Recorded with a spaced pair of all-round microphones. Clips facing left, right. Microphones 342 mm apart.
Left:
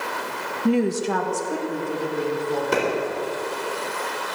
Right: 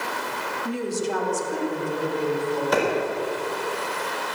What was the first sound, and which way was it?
A woman speaking, 75° left (ahead or behind).